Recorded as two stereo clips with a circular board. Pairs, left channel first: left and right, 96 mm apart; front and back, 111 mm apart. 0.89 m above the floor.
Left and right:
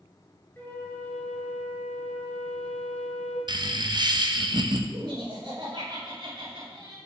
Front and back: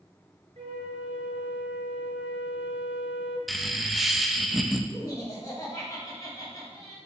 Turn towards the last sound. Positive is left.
turn(degrees=-55)